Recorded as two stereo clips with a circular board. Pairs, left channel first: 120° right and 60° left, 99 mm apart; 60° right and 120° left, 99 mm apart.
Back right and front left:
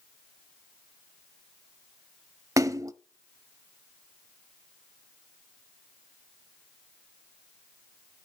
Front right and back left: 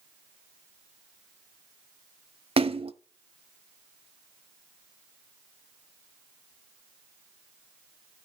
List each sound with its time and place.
2.6 s a splash: 115° left, 0.8 m